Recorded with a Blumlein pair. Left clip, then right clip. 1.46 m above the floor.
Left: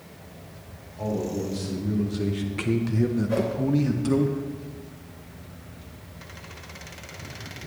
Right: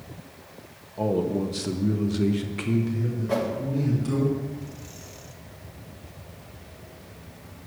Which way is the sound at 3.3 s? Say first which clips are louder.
Right 3 dB; 50° right.